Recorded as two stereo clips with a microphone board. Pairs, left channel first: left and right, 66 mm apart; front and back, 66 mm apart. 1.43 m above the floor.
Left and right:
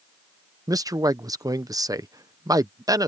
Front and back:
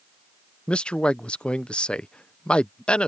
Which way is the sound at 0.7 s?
75° right.